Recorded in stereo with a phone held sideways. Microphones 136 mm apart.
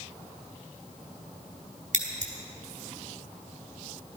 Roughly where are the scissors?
Right.